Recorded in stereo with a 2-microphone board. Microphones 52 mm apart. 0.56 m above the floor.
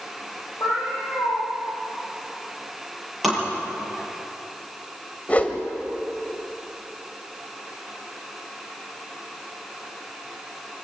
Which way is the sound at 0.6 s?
60° left (ahead or behind).